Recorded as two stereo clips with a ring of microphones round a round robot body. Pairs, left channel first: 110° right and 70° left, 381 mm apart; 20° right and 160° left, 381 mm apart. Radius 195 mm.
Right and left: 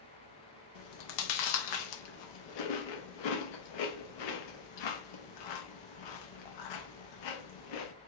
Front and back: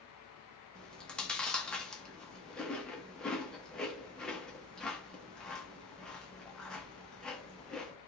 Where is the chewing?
110° right, 0.8 m.